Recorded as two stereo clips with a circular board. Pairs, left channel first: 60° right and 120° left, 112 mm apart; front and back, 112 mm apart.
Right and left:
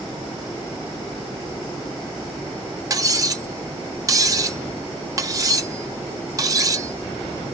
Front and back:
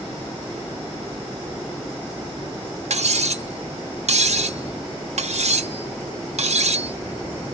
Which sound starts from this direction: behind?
Cutlery clinking, at 2.9 s.